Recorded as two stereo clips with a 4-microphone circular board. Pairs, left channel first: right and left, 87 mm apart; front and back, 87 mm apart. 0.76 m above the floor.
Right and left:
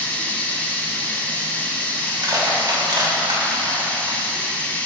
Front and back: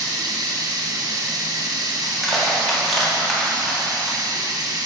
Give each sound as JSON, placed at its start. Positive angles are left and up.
{"t": 0.0, "sound": "running water", "azimuth_deg": -155, "distance_m": 1.2}
{"t": 2.0, "sound": "crushing", "azimuth_deg": 90, "distance_m": 1.7}